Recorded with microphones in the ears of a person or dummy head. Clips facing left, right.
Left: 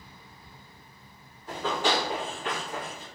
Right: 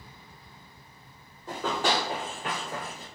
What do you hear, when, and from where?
1.5 s running footsteps: 45° right (ahead or behind), 1.8 m; by 3.0 s 25° right (ahead or behind), 1.4 m